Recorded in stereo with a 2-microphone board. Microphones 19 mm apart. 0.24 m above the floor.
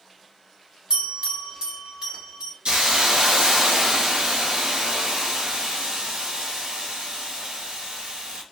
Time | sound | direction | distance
0.9 | a bell | 65° right (ahead or behind) | 2 m
2.6 | a hiss | 70° right (ahead or behind) | 0.8 m